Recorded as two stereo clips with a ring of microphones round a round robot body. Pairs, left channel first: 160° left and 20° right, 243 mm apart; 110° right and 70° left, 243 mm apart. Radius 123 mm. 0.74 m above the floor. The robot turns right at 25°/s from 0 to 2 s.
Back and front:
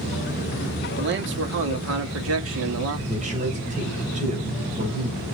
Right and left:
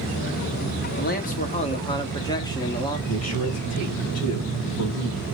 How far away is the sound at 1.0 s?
About 1.7 m.